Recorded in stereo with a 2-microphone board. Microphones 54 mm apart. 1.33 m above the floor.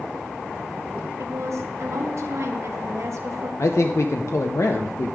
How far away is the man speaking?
About 0.7 m.